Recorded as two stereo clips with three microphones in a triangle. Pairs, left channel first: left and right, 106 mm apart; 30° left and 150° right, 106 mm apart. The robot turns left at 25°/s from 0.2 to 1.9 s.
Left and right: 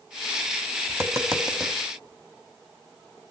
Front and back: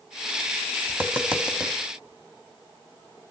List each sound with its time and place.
0.9 s tapping: 100° right, 1.3 m; by 1.7 s 120° right, 1.3 m